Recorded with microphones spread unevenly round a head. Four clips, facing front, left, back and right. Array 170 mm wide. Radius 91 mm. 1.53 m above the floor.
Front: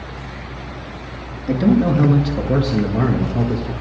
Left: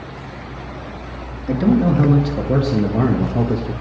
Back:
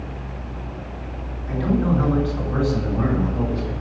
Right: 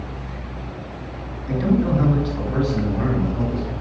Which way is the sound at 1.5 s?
25° left.